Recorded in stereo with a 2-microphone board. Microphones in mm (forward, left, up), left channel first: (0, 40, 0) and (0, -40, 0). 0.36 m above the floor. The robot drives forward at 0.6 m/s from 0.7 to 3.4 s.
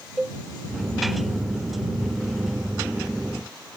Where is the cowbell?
5° right (ahead or behind).